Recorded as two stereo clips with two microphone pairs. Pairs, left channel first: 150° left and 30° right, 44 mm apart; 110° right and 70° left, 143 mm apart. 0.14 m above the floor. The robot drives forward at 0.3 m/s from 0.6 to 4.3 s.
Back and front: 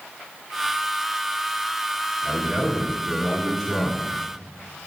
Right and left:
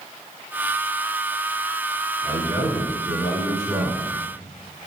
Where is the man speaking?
40° left, 1.3 m; by 4.1 s 85° left, 1.1 m.